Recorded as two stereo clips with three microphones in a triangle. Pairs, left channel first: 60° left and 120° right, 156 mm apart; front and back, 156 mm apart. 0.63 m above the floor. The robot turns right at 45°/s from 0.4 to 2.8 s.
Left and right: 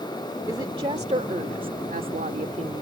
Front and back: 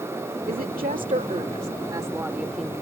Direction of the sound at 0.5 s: 175° left.